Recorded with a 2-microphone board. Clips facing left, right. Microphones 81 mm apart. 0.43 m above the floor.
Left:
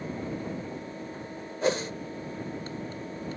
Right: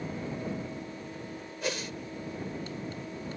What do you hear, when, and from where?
1.6 s a whoosh: 35° left (ahead or behind)